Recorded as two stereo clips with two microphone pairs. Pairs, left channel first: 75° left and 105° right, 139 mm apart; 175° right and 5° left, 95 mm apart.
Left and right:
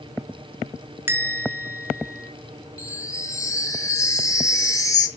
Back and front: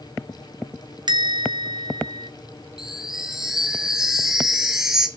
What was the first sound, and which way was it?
A bell, 35° right.